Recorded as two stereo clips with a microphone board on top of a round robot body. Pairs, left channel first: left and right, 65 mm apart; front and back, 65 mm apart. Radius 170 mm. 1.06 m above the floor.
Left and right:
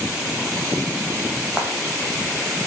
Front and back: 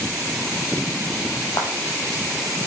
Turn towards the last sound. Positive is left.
turn(degrees=-15)